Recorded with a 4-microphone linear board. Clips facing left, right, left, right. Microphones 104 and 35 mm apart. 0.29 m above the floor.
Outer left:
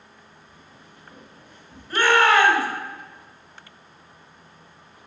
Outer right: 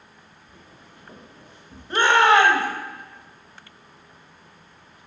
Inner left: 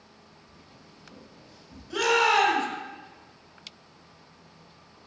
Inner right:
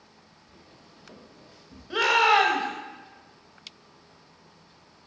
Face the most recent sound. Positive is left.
turn(degrees=-25)  # may be behind; listen again after turning